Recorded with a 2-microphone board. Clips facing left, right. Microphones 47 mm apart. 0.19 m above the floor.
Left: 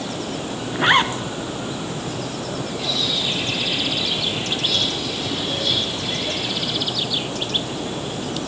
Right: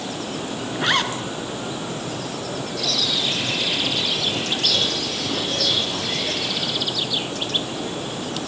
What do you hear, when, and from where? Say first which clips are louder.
0.8 s a zipper: left 5 dB; 25° left (ahead or behind), 1.2 m
2.8 s a bird: right 1 dB; 80° right, 6 m